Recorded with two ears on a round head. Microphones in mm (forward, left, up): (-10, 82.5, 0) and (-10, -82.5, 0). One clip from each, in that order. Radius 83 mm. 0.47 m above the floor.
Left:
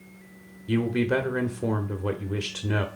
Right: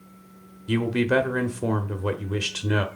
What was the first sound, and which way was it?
A man speaking, 15° right (ahead or behind).